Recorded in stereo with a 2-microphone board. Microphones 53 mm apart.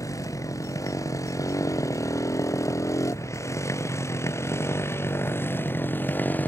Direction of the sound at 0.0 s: 85° left.